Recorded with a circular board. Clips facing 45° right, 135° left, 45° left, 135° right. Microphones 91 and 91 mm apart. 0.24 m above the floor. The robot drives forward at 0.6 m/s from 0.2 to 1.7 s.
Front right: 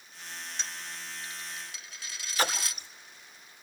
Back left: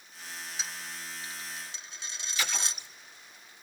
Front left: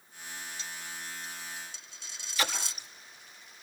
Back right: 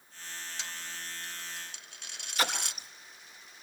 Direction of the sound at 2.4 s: 95° right.